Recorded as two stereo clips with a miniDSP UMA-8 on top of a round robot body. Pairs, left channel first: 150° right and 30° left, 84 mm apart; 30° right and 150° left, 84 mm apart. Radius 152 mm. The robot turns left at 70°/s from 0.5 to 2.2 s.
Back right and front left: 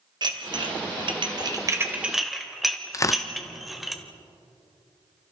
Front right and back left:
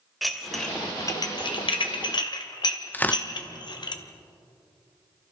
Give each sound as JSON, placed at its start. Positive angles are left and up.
{"t": 0.2, "sound": "dishes clattering", "azimuth_deg": 60, "distance_m": 1.8}
{"t": 2.9, "sound": "tearing paper", "azimuth_deg": -100, "distance_m": 1.1}